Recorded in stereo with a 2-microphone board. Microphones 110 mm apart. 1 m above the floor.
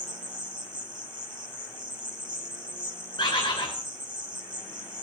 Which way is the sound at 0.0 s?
40° right (ahead or behind).